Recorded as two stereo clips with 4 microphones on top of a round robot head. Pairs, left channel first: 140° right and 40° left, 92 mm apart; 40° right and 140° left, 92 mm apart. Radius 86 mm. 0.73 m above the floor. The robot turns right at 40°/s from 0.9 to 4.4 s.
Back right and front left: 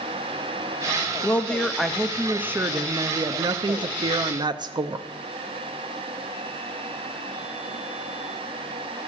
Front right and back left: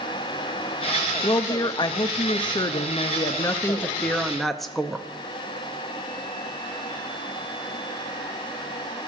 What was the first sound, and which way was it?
A woman speaking, 75° right.